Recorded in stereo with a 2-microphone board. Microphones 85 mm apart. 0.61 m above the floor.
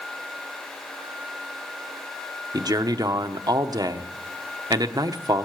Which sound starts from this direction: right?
A man speaking, at 2.5 s.